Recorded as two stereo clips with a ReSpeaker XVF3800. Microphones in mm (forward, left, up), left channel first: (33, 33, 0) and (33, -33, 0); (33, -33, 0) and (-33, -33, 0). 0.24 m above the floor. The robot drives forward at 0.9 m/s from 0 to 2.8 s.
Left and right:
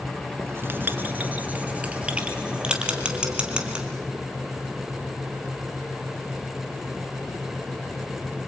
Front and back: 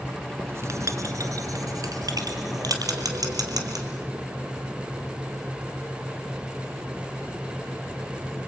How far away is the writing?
About 1.2 m.